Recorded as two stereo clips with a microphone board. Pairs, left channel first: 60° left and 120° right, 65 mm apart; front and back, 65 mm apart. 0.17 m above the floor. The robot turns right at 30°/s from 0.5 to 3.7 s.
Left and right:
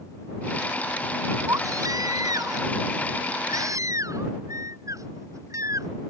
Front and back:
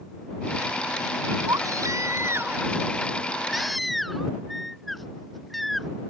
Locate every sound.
1.5 s a baby crying: 155° right; by 5.9 s 90° right